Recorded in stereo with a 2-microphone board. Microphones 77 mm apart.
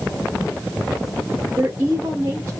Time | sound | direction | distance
1.6 | a woman speaking | 30° right (ahead or behind) | 0.9 m